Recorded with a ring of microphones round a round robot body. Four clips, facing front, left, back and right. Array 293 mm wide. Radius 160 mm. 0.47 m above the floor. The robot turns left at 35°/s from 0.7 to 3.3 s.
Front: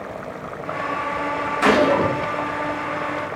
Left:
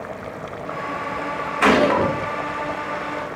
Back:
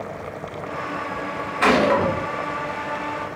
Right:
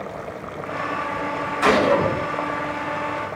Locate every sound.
1.6 s a gunshot: 125° left, 1.4 m; by 2.1 s 105° left, 1.4 m